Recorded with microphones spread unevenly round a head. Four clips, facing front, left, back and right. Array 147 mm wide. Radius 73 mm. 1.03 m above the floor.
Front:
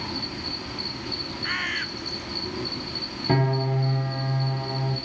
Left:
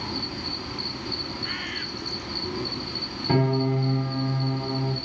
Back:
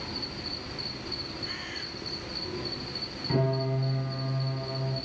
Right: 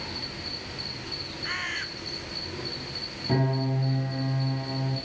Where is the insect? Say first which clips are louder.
Left 6 dB, front 5 dB; 45° left, 3 m.